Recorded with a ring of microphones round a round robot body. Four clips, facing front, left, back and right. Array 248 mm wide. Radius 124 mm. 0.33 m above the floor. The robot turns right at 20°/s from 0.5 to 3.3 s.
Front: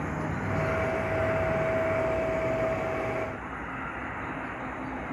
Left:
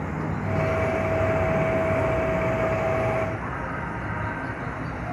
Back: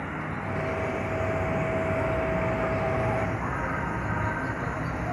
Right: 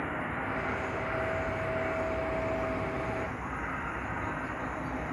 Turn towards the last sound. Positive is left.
turn(degrees=140)